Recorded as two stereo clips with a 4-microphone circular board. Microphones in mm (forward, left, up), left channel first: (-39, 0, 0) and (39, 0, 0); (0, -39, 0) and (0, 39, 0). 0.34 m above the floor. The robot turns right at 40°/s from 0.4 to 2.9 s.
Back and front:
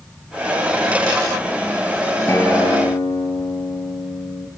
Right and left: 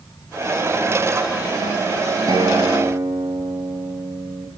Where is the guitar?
120° left, 4.5 m; by 4.5 s 145° left, 4.5 m.